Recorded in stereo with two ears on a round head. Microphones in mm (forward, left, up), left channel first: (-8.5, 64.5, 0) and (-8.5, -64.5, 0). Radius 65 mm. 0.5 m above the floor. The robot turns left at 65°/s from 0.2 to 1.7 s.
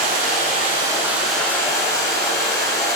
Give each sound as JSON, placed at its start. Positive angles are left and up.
{"t": 0.0, "sound": "running water", "azimuth_deg": -110, "distance_m": 6.0}